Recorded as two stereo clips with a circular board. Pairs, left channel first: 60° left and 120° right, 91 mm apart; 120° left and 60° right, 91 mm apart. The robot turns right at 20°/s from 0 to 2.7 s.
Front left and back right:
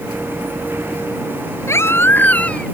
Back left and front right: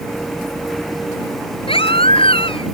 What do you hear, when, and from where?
1.7 s a baby crying: 120° left; by 2.7 s 140° left